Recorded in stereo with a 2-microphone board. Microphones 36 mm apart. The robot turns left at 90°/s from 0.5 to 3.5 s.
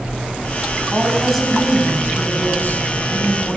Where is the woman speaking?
135° right, 6 m; by 3.6 s 10° right, 6 m.